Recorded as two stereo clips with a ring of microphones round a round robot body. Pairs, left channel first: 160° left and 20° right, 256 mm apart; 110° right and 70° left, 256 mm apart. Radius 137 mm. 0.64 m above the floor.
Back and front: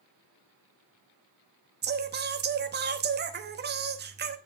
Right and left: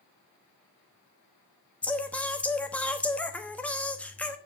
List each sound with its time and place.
1.8 s singing: 30° right, 1.0 m